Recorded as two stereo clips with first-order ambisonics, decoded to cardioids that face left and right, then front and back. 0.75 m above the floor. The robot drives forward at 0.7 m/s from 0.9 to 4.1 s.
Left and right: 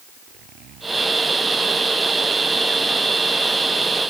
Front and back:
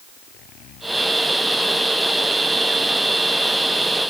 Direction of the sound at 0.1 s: 45° right.